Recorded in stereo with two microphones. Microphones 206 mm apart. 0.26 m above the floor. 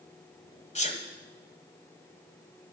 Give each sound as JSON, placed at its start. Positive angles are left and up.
{"t": 0.8, "sound": "a sneeze", "side_deg": 35, "distance_m": 1.3}